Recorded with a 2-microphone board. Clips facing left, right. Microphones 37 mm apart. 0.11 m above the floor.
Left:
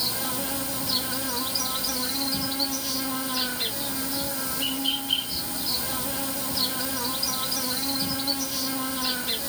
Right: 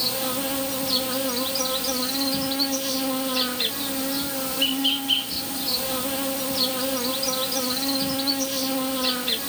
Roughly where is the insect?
Right.